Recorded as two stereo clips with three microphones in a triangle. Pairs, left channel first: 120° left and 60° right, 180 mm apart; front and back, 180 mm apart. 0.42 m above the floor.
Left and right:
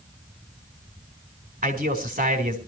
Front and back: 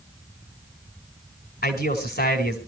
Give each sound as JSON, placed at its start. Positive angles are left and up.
{"t": 1.6, "sound": "a man speaking", "azimuth_deg": -20, "distance_m": 3.5}